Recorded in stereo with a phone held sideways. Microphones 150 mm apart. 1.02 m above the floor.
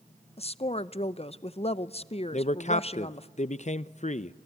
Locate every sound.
0.4 s a woman speaking: 45° left (ahead or behind), 0.6 m
2.3 s a man speaking: 50° left (ahead or behind), 0.5 m